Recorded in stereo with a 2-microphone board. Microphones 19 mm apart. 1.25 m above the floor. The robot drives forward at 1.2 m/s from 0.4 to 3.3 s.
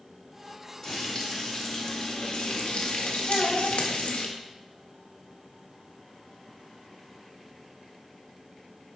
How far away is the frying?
About 3 m.